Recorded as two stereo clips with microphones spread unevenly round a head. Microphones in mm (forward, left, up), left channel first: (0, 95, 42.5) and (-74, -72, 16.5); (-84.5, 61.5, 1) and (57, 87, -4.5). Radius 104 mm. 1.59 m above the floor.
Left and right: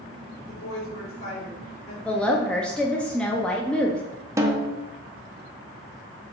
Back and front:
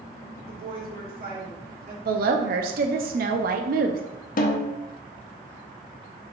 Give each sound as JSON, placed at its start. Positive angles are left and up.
{"t": 0.5, "sound": "a woman speaking", "azimuth_deg": 20, "distance_m": 2.0}
{"t": 2.0, "sound": "a woman speaking", "azimuth_deg": -15, "distance_m": 0.5}
{"t": 4.4, "sound": "a snare drum", "azimuth_deg": 170, "distance_m": 0.6}